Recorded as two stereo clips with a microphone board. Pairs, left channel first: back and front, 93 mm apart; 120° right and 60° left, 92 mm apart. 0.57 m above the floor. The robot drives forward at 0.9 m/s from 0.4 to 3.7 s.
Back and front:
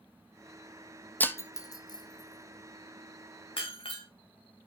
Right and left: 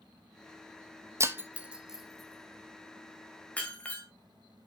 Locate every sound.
1.2 s breaking glass: 110° left, 0.9 m; by 4.0 s 165° left, 2.5 m